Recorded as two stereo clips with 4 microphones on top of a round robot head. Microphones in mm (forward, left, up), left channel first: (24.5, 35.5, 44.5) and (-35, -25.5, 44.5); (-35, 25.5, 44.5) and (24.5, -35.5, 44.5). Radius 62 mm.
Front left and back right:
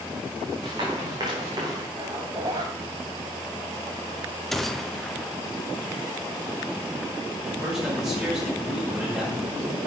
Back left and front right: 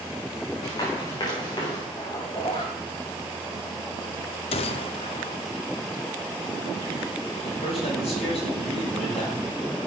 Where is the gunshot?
130° left, 0.9 m.